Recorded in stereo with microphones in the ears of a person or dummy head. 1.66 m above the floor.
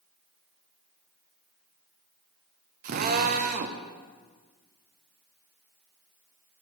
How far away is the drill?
About 0.9 m.